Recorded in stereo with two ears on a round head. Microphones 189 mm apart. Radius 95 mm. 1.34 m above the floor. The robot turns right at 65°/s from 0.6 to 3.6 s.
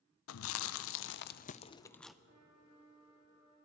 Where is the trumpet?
95° right, 6 m; by 3.6 s 5° right, 6 m.